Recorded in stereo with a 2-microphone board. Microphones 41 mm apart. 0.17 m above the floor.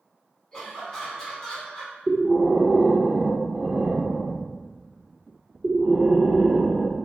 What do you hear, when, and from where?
0.5 s laughter: 15° left (ahead or behind), 1.7 m
2.1 s breathing: 20° right (ahead or behind), 0.6 m